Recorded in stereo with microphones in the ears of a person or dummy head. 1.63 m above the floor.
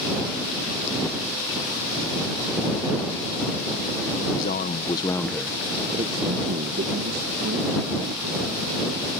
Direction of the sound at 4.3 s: 45° left (ahead or behind).